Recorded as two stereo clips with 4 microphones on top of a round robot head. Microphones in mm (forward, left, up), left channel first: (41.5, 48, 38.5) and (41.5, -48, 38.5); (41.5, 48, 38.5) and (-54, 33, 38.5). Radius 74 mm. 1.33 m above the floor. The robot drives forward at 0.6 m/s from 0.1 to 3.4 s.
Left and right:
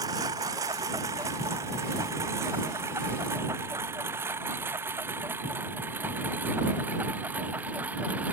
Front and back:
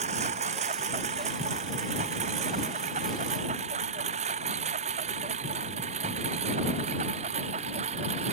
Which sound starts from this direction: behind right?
A lawn mower, at 0.0 s.